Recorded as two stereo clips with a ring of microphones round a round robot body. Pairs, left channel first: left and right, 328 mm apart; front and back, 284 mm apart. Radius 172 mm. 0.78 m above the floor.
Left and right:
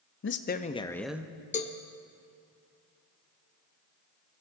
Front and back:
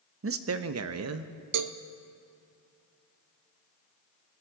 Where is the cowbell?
160° left, 0.6 m.